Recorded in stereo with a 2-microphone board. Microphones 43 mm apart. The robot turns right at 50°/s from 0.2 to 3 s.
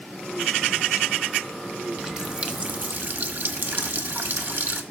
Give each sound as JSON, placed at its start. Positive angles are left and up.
{"t": 2.0, "sound": "a running tap", "azimuth_deg": -170, "distance_m": 1.2}